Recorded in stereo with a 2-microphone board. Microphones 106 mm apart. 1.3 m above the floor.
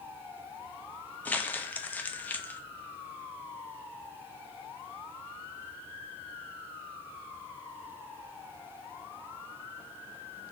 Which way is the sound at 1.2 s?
15° left (ahead or behind).